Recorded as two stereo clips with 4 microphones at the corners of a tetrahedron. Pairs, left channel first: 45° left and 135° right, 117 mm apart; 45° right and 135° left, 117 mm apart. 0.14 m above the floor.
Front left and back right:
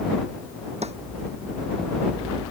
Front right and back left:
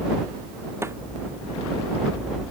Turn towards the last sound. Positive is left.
turn(degrees=-160)